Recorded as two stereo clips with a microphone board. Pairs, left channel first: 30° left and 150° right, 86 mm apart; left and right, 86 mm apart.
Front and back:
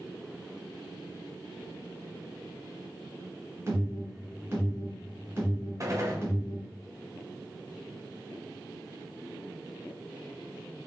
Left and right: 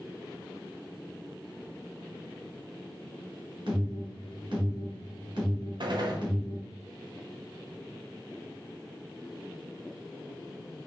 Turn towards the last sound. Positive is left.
turn(degrees=-105)